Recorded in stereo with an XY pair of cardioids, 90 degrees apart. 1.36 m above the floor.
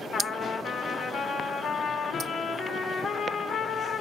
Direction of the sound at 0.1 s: 65° left.